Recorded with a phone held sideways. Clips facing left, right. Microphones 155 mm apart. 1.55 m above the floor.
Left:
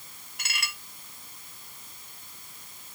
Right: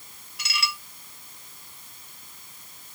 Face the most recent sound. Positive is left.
turn(degrees=55)  # may be behind; listen again after turning